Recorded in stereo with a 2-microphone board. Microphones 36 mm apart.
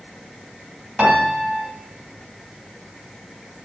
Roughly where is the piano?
Right.